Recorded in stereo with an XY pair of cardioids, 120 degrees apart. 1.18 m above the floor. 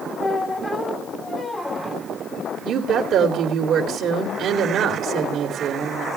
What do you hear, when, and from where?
0.2 s a squeak: 15° left, 3 m
2.6 s a woman speaking: 60° right, 3 m